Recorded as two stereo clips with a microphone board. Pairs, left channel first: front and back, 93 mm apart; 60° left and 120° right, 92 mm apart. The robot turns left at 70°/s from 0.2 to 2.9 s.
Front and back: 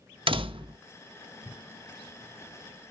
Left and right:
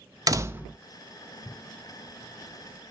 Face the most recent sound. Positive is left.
turn(degrees=10)